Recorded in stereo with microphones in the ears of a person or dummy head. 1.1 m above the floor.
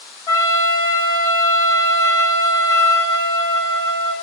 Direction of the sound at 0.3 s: 20° left (ahead or behind).